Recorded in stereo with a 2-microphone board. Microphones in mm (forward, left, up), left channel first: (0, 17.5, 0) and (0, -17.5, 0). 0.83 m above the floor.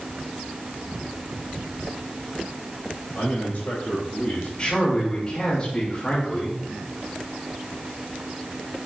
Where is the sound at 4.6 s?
25° left (ahead or behind), 3 m.